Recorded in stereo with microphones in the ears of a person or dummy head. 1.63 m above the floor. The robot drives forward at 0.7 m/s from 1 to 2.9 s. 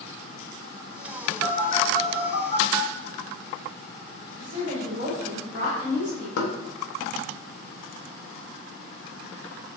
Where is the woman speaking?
40° right (ahead or behind), 2 m.